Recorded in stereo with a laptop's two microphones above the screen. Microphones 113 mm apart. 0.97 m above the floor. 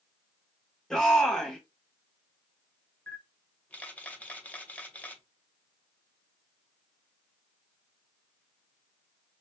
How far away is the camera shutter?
About 0.6 m.